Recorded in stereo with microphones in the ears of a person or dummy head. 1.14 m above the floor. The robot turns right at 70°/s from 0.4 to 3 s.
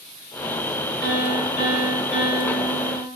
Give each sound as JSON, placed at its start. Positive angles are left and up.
{"t": 1.0, "sound": "a piano", "azimuth_deg": -5, "distance_m": 1.3}